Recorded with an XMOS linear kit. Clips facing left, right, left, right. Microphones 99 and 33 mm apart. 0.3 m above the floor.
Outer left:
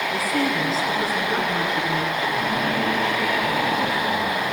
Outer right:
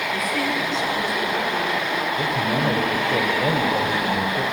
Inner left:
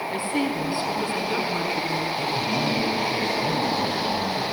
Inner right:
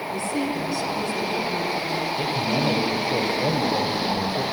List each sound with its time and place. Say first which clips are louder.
0.1 s a woman speaking: outer left 1 dB, even; 35° left (ahead or behind), 3 m; by 2.1 s 45° left (ahead or behind), 3.5 m
2.2 s a man speaking: outer right 1 dB, inner right 1 dB; 65° right (ahead or behind), 4.5 m